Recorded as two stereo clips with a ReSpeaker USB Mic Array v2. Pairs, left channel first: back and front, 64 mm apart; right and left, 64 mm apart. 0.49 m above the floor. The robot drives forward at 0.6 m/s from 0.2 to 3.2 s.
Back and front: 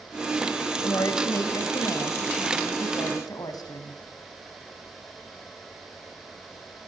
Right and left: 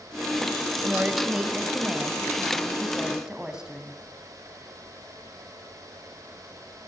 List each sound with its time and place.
0.8 s a woman speaking: 165° left, 2.5 m; by 4.0 s 170° left, 4 m